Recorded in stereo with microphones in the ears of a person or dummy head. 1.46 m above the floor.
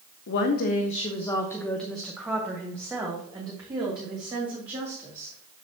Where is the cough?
No cough in this recording.